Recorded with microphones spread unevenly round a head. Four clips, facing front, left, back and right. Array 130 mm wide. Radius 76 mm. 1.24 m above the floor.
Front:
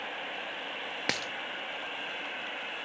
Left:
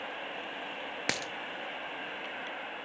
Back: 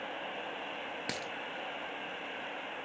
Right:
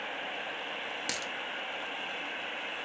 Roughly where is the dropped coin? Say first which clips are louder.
Left 2 dB, front 7 dB; ahead left.